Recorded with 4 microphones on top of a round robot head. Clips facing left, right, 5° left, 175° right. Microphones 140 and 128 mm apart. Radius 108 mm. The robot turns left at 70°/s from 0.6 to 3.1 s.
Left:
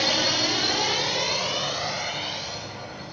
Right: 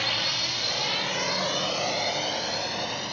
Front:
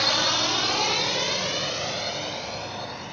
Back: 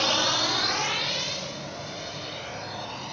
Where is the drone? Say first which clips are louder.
Left 8 dB, even; 110° left; by 3.1 s 110° right.